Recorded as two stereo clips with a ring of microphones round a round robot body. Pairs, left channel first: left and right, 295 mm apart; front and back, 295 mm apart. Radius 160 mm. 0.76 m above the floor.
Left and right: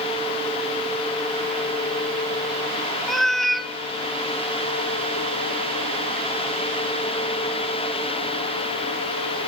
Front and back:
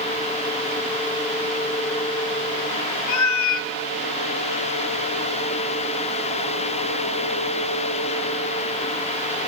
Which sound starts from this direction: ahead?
A cat meowing, at 3.1 s.